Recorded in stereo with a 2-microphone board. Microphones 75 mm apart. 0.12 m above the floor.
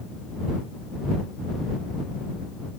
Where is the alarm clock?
I don't hear an alarm clock.